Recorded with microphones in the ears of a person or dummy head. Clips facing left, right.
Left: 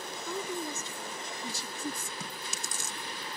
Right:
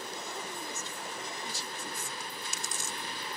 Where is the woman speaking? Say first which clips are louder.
Left 5 dB; 85° left; by 2.1 s 80° left.